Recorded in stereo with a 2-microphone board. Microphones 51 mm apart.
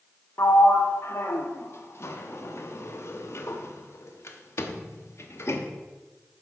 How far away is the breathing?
I don't hear breathing.